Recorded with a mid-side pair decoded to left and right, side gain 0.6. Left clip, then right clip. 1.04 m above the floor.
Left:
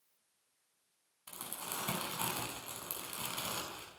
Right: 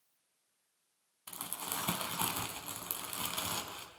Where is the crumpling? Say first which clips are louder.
Right 2 dB; 20° right, 5.5 m.